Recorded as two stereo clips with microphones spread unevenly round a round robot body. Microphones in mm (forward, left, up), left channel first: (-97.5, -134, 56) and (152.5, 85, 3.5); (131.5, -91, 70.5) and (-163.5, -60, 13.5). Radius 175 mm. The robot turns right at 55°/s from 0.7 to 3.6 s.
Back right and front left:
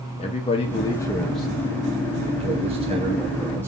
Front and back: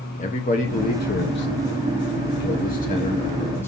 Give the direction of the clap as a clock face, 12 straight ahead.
No clap in this recording.